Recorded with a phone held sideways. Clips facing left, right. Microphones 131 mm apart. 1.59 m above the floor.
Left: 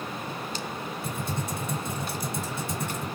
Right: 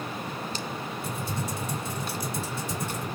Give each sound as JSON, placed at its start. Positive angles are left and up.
{"t": 1.0, "sound": "typing on a keyboard", "side_deg": 65, "distance_m": 1.5}